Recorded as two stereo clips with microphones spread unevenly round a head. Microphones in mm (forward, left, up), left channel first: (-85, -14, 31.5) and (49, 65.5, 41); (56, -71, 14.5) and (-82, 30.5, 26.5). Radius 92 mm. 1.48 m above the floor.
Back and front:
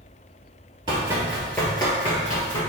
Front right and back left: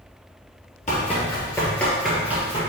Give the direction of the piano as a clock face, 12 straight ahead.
No piano in this recording.